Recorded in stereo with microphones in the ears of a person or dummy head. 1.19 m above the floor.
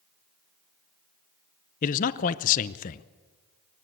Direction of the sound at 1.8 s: 45° left (ahead or behind).